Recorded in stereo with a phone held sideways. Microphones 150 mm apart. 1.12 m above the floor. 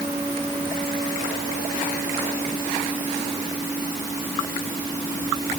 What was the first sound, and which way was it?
Only background noise.